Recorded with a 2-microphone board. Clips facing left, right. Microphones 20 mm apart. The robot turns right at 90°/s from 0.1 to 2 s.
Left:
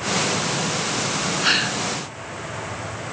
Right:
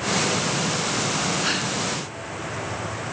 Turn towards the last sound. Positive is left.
turn(degrees=75)